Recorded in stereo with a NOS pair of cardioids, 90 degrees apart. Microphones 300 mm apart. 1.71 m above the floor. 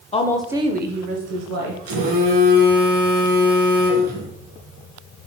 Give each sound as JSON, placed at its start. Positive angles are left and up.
{"t": 0.1, "sound": "a woman speaking", "azimuth_deg": 20, "distance_m": 0.6}
{"t": 1.9, "sound": "a phone buzzing", "azimuth_deg": -70, "distance_m": 1.3}